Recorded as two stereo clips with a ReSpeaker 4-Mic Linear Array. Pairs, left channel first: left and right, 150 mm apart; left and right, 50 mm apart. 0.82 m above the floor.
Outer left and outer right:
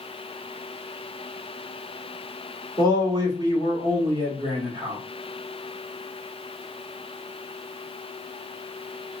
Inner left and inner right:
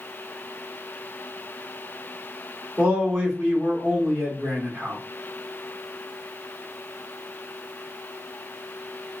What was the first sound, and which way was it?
A man speaking, 30° right (ahead or behind).